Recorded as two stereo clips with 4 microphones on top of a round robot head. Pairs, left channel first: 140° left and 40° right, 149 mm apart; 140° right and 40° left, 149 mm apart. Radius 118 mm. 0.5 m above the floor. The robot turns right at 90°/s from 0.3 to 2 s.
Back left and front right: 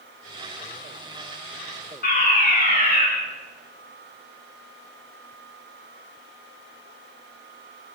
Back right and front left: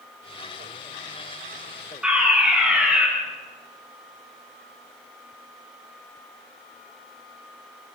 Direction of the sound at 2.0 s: 125° left.